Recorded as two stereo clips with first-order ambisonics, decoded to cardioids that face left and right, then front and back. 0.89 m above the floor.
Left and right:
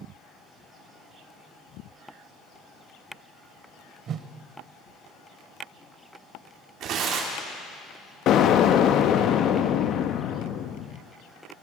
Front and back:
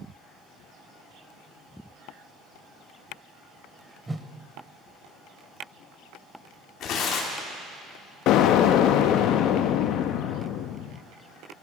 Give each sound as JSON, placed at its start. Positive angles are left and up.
{"t": 4.1, "sound": "a whoosh", "azimuth_deg": -105, "distance_m": 0.7}
{"t": 6.8, "sound": "tearing paper", "azimuth_deg": -45, "distance_m": 1.9}
{"t": 8.3, "sound": "an explosion", "azimuth_deg": 40, "distance_m": 0.6}